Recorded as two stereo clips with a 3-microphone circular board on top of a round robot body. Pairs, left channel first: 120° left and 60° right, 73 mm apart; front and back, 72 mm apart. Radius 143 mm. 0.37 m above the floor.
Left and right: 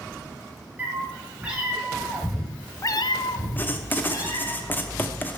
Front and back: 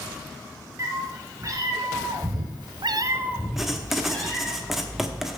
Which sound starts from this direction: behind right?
A cat meowing, at 0.8 s.